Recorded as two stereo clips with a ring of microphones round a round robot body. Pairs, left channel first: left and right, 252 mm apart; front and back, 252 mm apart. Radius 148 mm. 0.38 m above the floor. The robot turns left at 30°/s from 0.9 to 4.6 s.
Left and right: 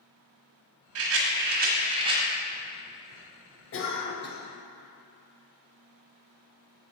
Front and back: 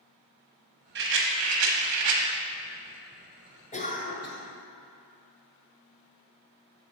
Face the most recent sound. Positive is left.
turn(degrees=35)